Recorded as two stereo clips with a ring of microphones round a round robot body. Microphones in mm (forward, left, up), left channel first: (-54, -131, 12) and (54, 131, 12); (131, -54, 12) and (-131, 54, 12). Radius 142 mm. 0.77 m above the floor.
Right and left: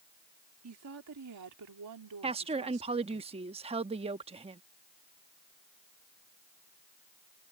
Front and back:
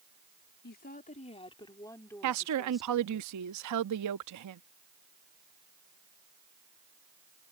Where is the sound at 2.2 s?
135° left.